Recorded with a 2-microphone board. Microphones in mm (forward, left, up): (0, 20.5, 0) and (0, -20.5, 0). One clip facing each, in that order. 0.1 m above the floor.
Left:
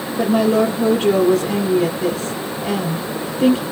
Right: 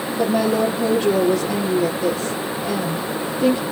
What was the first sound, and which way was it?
A woman speaking, 55° left (ahead or behind).